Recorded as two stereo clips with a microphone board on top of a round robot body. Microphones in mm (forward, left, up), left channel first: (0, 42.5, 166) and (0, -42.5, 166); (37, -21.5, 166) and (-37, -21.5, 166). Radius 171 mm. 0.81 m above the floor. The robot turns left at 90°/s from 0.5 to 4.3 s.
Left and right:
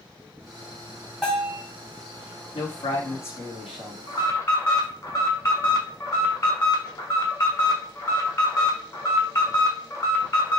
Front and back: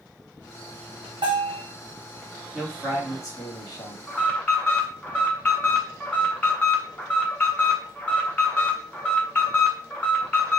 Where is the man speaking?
100° left, 1.8 m; by 4.0 s 30° right, 1.8 m.